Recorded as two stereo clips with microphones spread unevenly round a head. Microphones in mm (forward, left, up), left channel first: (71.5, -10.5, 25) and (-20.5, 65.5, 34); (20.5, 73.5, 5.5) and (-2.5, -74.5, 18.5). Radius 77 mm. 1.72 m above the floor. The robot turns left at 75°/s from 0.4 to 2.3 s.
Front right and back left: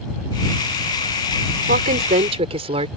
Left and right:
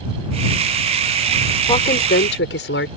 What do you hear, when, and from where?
1.7 s a woman speaking: 145° left; by 2.9 s 100° left